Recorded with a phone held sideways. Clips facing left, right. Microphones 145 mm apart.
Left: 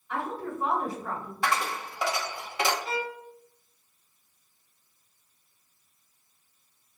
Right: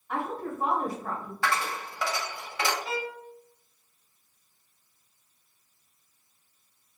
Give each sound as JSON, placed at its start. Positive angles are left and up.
{"t": 0.1, "sound": "a woman speaking", "side_deg": -50, "distance_m": 2.0}
{"t": 1.4, "sound": "a dropped coin", "side_deg": 20, "distance_m": 1.2}
{"t": 2.9, "sound": "a violin", "side_deg": -5, "distance_m": 1.1}